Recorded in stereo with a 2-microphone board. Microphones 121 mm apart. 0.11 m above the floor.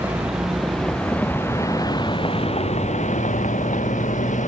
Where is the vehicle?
10° right (ahead or behind); by 4.5 s 80° left.